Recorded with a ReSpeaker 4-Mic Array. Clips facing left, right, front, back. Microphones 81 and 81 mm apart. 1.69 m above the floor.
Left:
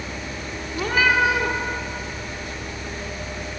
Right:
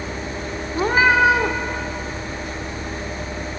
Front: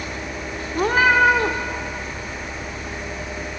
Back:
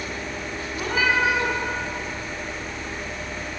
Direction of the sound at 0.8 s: 35° right.